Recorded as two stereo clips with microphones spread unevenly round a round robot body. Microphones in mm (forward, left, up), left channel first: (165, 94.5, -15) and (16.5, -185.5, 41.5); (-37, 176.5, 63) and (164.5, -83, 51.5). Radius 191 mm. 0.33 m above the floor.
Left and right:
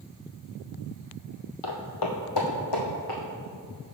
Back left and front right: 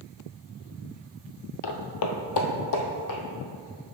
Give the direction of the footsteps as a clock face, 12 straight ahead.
8 o'clock.